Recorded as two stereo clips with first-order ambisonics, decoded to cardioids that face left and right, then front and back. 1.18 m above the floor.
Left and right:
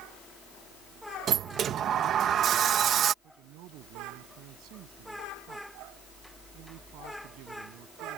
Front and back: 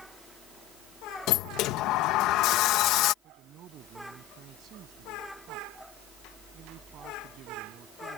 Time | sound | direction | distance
1.3 | a sliding door | 35° right | ?
3.2 | a man speaking | 125° right | ?